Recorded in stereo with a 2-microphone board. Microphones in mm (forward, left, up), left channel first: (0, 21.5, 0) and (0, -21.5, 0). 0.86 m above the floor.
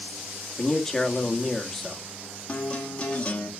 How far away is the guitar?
About 1.7 m.